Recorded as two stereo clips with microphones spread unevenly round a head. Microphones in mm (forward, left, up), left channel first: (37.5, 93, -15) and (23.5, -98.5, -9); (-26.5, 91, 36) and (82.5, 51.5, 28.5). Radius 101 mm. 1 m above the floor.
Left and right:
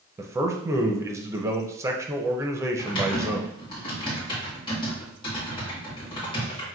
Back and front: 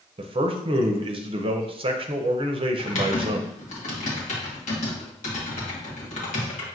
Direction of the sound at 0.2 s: 20° right.